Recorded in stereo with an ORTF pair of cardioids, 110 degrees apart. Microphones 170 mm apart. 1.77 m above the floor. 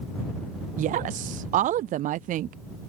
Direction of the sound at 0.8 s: 50° right.